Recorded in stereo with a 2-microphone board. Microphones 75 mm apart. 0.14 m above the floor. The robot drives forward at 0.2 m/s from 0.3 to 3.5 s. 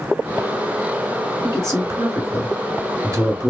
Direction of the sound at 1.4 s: 40° right (ahead or behind).